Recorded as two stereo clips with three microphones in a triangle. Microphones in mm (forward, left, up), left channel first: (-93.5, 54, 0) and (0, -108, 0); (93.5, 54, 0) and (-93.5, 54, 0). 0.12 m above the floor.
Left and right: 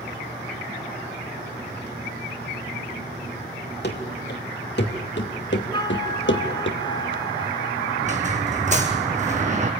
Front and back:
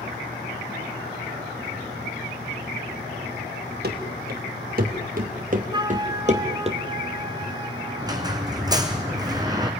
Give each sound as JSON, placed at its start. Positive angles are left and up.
{"t": 3.8, "sound": "running footsteps", "azimuth_deg": 145, "distance_m": 4.0}
{"t": 5.7, "sound": "a flute", "azimuth_deg": 150, "distance_m": 0.9}
{"t": 8.0, "sound": "a squeak", "azimuth_deg": -110, "distance_m": 1.9}